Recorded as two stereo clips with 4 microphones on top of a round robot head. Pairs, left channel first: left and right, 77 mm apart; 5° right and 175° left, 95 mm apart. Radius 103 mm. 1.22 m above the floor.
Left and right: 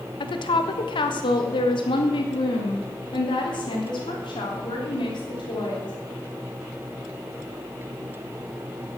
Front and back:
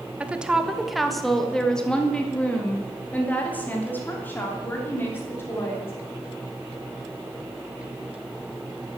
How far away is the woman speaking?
About 1.3 m.